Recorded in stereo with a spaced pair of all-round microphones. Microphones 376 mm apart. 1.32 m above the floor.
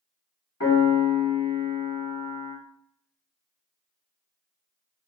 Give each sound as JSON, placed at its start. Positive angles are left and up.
{"t": 0.6, "sound": "a piano", "side_deg": 45, "distance_m": 1.4}